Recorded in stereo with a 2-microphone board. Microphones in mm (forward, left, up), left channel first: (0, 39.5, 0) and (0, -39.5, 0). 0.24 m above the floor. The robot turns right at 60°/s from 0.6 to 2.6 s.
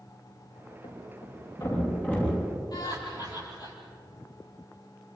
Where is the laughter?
55° left (ahead or behind), 7.5 m.